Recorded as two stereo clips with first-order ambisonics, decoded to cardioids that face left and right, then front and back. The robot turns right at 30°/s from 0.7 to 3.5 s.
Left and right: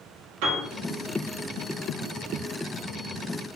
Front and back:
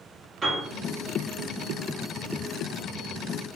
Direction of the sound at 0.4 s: 110° right.